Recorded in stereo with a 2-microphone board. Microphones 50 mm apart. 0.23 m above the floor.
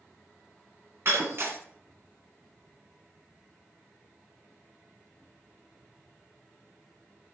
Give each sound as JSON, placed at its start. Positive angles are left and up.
{"t": 1.1, "sound": "breaking glass", "side_deg": -55, "distance_m": 1.6}